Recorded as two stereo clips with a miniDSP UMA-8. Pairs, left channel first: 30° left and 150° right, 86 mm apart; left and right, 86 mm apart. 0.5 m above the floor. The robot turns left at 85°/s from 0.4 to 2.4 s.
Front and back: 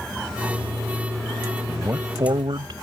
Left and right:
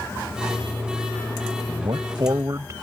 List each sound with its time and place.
1.7 s a man speaking: 75° right; by 2.7 s 135° right